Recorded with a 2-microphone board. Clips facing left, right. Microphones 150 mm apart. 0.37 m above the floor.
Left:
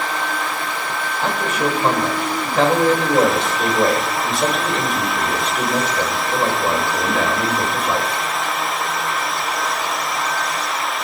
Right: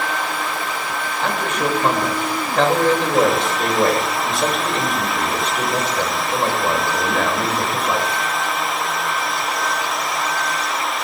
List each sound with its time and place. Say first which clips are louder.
1.2 s a man speaking: left 1 dB; 5° left (ahead or behind), 1.8 m